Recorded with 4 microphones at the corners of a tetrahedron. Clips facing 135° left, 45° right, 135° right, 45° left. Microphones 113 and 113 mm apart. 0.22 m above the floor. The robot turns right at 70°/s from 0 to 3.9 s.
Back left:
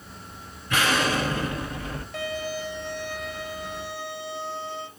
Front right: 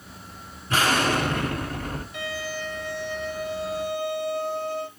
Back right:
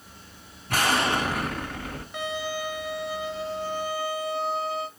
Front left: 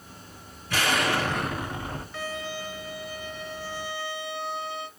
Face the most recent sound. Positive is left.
turn(degrees=-85)